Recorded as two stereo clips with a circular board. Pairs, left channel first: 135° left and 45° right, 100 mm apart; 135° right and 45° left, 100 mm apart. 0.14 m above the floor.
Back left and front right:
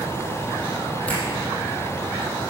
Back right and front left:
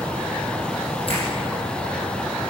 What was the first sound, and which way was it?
A finger snap, 145° right.